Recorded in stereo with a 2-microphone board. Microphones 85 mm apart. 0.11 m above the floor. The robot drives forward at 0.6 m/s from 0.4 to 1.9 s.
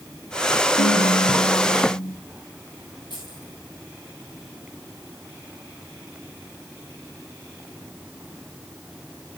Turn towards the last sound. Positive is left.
turn(degrees=60)  # may be behind; listen again after turning